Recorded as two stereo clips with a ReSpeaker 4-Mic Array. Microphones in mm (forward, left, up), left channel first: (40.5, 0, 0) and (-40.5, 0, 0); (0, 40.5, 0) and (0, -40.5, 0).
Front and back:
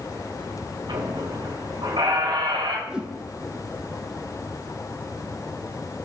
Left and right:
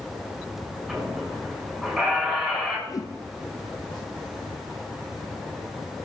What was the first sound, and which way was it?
A squeak, 175° right.